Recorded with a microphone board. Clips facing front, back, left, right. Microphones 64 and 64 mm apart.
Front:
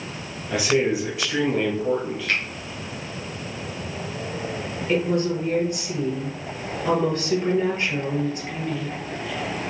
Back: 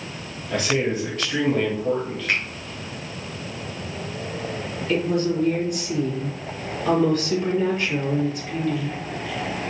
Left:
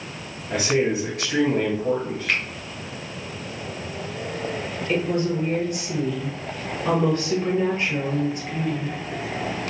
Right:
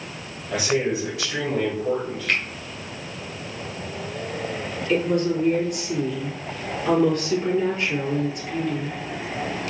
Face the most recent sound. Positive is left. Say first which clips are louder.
# even, right 2 dB
turn(degrees=45)